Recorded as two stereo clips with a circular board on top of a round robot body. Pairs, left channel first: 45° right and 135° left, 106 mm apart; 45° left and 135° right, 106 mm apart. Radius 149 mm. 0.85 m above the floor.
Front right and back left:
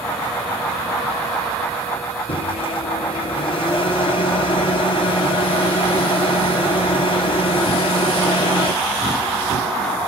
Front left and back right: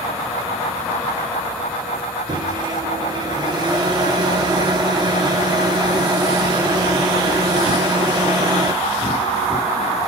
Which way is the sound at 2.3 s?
80° right.